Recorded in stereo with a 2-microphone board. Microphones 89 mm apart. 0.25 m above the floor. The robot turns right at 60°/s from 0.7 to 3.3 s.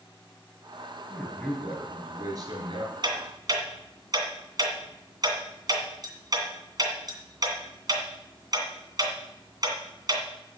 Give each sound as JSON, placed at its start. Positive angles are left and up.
{"t": 1.1, "sound": "a man speaking", "azimuth_deg": 150, "distance_m": 5.0}
{"t": 3.0, "sound": "ticking", "side_deg": -55, "distance_m": 2.5}